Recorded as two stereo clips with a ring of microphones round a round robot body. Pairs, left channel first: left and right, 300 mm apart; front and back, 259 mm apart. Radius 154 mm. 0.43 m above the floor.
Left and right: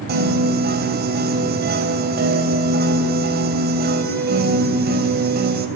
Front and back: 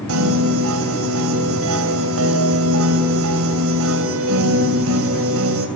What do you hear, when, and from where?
0.1 s a piano: 145° right, 3 m